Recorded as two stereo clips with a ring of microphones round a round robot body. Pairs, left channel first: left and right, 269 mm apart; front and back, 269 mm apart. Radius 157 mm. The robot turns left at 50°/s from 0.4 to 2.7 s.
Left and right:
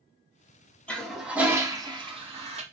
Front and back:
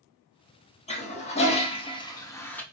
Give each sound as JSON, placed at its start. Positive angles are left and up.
{"t": 0.9, "sound": "a toilet flushing", "azimuth_deg": 10, "distance_m": 0.9}